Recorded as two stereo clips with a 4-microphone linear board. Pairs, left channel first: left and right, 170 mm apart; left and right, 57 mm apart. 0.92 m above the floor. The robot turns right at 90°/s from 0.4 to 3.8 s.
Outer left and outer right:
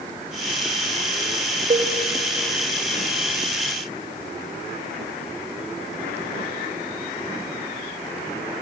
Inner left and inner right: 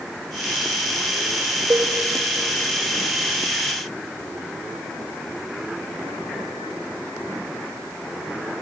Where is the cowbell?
50° right (ahead or behind), 1.5 m; by 1.9 s 30° right (ahead or behind), 1.5 m.